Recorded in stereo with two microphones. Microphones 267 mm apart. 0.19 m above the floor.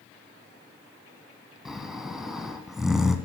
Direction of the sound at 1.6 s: Centre (ahead or behind).